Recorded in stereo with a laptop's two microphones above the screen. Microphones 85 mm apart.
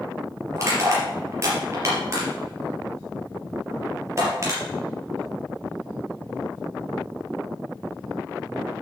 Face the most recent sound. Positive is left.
turn(degrees=-35)  # may be behind; listen again after turning